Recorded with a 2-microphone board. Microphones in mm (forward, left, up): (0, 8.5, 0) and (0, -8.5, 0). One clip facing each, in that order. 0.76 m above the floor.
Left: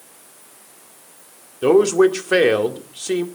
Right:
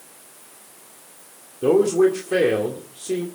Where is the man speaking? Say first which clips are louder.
Left 3 dB; 70° left (ahead or behind), 1.9 m.